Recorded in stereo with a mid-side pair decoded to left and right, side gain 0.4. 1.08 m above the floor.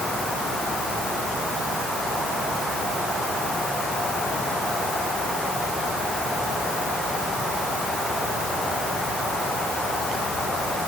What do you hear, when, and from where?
Only background noise.